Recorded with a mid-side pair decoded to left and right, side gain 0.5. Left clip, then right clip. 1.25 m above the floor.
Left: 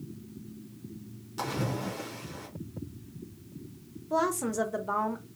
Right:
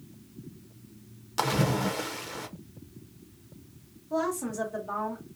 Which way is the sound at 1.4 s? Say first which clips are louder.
Right 6 dB; 60° right.